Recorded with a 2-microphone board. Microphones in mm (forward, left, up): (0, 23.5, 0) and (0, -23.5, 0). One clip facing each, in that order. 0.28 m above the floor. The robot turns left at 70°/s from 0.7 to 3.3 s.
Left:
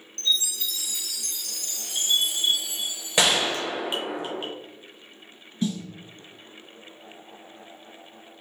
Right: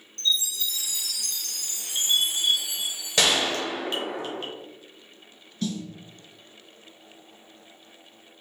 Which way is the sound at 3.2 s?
15° left (ahead or behind).